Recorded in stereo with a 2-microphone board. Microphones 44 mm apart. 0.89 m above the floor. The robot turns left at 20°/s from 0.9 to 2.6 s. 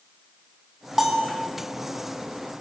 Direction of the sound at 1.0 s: 5° right (ahead or behind).